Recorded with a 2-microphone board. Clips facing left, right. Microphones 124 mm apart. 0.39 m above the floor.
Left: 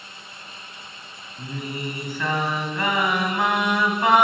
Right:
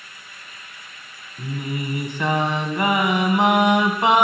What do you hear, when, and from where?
1.4 s singing: 20° right (ahead or behind), 2.5 m